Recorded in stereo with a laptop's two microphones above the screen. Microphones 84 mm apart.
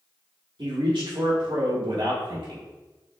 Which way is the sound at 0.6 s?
70° right (ahead or behind).